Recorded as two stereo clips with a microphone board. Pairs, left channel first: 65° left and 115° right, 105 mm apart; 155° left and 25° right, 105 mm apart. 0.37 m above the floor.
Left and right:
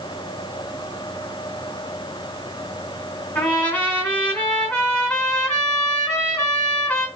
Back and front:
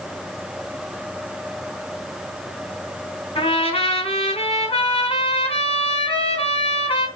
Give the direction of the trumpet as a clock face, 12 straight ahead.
7 o'clock.